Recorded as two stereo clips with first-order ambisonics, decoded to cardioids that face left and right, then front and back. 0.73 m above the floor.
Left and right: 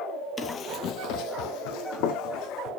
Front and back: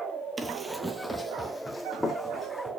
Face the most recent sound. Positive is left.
turn(degrees=85)